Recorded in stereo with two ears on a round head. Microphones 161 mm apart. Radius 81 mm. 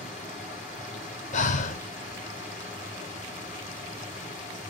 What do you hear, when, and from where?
0.0 s running water: 50° left (ahead or behind), 2.5 m
1.3 s breathing: 45° left (ahead or behind), 0.7 m